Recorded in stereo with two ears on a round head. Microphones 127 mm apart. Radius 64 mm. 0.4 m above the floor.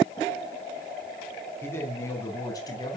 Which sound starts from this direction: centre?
A man speaking, at 1.6 s.